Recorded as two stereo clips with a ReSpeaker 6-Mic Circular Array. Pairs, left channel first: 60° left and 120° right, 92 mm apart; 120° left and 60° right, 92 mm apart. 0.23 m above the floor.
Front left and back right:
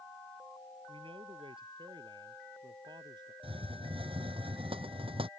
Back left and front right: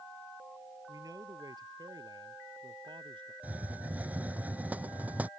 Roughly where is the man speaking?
Right.